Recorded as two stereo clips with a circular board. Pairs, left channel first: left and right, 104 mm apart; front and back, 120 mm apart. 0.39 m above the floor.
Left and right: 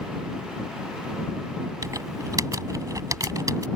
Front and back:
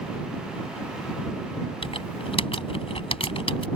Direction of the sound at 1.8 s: 35° right.